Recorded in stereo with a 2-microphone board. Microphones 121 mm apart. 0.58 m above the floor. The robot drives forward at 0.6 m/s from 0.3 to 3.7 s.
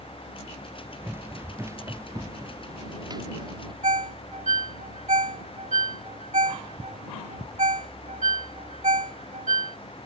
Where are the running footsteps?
20° right (ahead or behind); by 3.7 s 40° right (ahead or behind).